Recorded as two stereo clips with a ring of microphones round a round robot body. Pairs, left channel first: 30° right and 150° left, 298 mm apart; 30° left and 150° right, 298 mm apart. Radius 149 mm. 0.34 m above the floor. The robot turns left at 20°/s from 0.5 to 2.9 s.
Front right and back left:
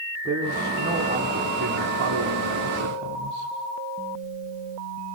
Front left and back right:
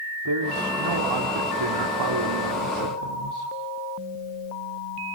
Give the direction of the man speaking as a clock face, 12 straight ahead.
4 o'clock.